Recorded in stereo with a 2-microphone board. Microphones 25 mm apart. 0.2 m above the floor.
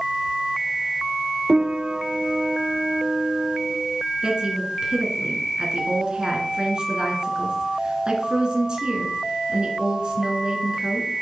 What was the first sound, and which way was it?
A piano, 65° right (ahead or behind).